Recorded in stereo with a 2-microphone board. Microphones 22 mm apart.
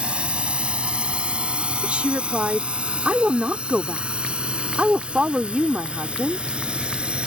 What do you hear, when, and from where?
0.0 s a drone: 60° right (ahead or behind); by 7.3 s 55° right (ahead or behind)
1.8 s a woman speaking: 70° right (ahead or behind)